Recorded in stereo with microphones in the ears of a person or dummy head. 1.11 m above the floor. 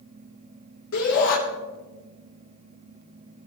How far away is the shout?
About 4 m.